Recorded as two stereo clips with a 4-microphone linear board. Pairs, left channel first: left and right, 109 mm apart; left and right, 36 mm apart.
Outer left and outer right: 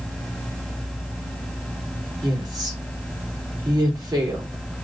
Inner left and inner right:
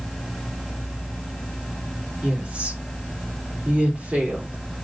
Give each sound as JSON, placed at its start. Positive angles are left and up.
{"t": 2.2, "sound": "a woman speaking", "side_deg": -35, "distance_m": 3.5}